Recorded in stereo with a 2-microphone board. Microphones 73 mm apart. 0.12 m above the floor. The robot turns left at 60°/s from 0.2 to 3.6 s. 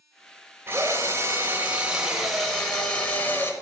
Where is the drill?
75° right, 1.0 m; by 3.5 s 115° left, 1.0 m.